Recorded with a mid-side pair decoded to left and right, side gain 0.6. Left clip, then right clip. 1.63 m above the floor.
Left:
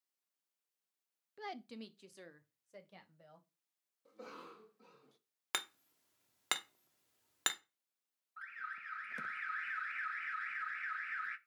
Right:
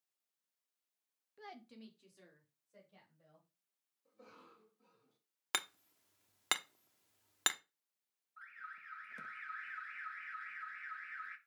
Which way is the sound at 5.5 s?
10° right.